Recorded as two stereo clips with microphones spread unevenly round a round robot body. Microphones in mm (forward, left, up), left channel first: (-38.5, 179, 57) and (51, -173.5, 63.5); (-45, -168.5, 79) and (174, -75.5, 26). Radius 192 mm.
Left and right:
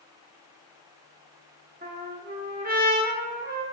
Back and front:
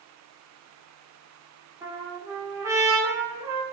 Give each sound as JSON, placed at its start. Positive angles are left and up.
{"t": 1.8, "sound": "a trumpet", "azimuth_deg": -25, "distance_m": 1.1}